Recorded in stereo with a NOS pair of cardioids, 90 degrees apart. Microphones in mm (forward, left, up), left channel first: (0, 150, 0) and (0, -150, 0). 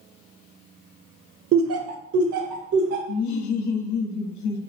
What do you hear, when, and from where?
1.5 s laughter: 40° right, 0.5 m; by 3.0 s 80° right, 1.2 m
3.1 s laughter: 70° left, 0.7 m